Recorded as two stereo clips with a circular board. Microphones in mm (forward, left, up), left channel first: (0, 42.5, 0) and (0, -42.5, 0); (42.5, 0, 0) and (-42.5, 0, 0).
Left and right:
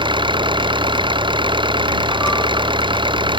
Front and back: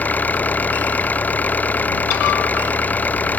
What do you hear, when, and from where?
0.0 s an engine running: 70° right